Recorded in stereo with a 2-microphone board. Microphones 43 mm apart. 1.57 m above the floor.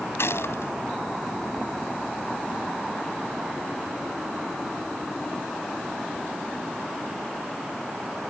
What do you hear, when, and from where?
0.2 s a gunshot: 85° left